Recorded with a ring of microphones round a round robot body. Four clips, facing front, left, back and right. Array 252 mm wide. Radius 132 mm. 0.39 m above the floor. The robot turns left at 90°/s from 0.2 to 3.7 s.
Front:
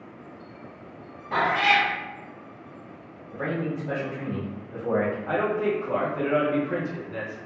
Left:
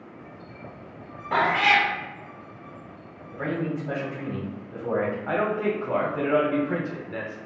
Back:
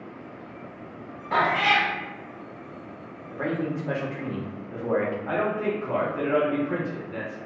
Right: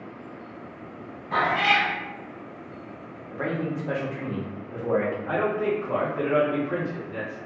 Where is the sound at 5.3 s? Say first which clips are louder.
Even, front 1 dB; 105° left, 1.1 m.